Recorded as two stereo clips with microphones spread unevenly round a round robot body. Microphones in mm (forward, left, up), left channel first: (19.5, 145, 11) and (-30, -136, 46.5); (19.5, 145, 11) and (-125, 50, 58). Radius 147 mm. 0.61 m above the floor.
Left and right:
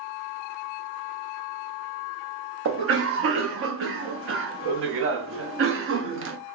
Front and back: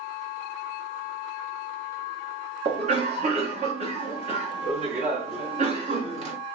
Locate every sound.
2.6 s a cough: 95° right, 0.6 m